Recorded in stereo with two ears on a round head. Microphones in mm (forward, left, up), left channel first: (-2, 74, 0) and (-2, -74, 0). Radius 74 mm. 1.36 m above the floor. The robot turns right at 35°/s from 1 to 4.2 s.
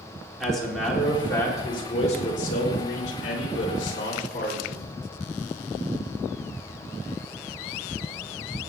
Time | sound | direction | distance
0.4 | a man speaking | straight ahead | 4 m